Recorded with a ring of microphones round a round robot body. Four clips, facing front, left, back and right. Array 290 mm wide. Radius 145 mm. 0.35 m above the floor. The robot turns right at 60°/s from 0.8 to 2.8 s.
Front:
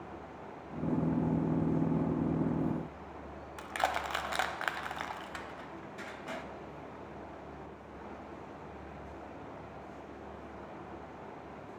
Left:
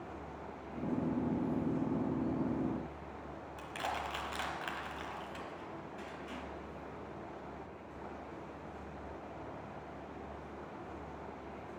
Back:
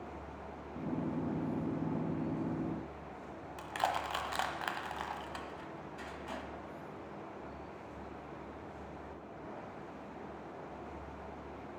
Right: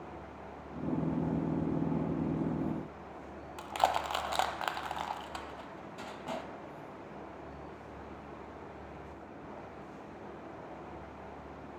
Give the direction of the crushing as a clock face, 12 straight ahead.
2 o'clock.